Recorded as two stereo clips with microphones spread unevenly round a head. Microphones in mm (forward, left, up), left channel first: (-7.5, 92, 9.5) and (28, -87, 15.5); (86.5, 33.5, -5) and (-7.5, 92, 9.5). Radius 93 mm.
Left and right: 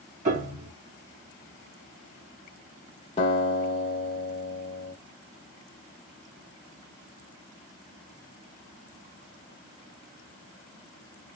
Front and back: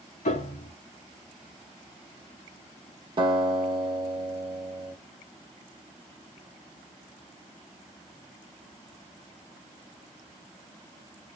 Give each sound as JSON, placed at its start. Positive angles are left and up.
{"t": 0.2, "sound": "a piano", "azimuth_deg": -30, "distance_m": 1.9}
{"t": 3.2, "sound": "a guitar", "azimuth_deg": 155, "distance_m": 1.3}